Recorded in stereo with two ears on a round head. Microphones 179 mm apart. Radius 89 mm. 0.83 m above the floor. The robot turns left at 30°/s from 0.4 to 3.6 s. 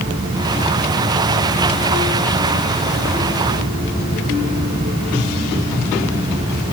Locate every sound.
Only background noise.